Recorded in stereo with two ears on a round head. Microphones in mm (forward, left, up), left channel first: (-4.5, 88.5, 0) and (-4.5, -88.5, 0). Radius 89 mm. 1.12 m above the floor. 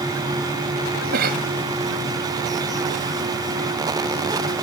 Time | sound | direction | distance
1.1 | a cough | 50° right (ahead or behind) | ?